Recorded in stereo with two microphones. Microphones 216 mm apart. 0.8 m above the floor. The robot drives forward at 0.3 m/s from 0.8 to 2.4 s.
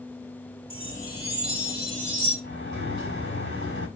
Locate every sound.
0.7 s a chime: 75° right (ahead or behind), 2.5 m; by 2.3 s 65° right (ahead or behind), 3 m
2.4 s a sliding door: 70° left (ahead or behind), 5.5 m